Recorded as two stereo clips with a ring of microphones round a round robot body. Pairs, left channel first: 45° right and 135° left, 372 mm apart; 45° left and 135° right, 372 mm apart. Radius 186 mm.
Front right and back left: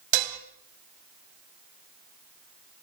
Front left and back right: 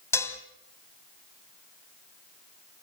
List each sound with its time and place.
0.1 s dishes clattering: 130° left, 2.0 m